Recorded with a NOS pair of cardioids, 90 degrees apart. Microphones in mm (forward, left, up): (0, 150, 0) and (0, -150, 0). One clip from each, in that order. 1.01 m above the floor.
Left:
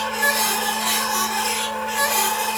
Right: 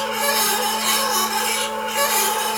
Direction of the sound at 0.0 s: 20° right.